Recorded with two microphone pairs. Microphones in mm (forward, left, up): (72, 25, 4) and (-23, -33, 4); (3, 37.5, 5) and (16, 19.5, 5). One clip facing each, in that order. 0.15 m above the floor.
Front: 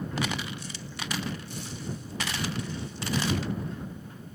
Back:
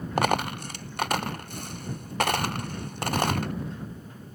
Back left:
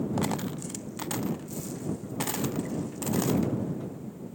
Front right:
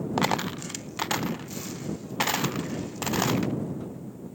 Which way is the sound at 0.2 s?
110° right.